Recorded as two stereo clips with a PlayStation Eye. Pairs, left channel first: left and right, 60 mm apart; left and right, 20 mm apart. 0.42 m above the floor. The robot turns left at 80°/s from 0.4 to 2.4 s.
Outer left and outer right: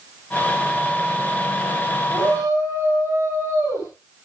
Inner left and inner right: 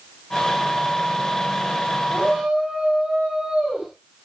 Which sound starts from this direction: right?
A shout, at 2.1 s.